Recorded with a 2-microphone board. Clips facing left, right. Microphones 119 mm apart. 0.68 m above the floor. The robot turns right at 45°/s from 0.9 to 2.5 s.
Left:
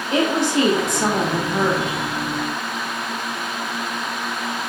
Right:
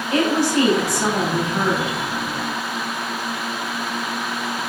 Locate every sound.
0.1 s a woman speaking: 30° left, 0.9 m; by 2.0 s 80° left, 0.9 m